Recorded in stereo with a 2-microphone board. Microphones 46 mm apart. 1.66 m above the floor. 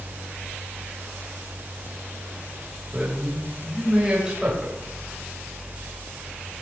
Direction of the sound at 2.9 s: 10° right (ahead or behind).